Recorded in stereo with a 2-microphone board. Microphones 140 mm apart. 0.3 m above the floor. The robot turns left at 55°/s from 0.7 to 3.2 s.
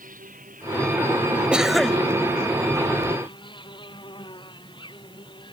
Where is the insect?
80° right; by 5.5 s 145° left.